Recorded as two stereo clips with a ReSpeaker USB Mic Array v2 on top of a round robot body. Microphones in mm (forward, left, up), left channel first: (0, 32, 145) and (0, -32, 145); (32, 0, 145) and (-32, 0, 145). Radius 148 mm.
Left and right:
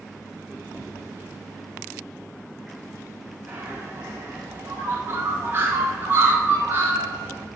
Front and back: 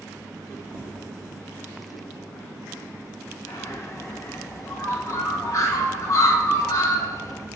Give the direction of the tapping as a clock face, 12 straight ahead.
8 o'clock.